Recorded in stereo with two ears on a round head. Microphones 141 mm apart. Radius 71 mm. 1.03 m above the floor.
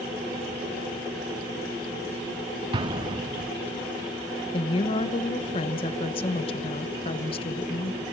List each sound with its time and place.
2.7 s an explosion: 30° right (ahead or behind), 0.5 m
4.5 s a woman speaking: 35° left (ahead or behind), 1.0 m